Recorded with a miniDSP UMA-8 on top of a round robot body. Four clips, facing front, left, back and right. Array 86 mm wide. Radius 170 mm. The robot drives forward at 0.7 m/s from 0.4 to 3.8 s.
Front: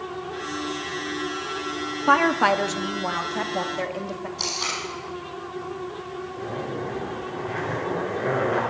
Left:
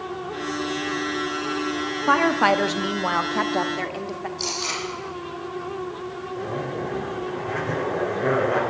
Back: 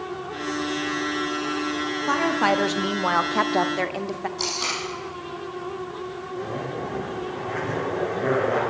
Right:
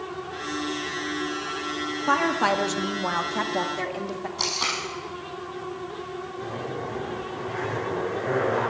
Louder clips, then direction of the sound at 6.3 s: Left 5 dB, back 1 dB; 120° left.